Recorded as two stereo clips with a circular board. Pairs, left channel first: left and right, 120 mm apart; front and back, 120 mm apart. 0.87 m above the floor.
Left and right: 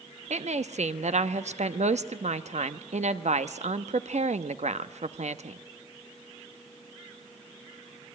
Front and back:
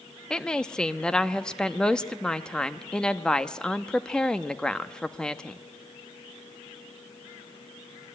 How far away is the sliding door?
I don't hear a sliding door.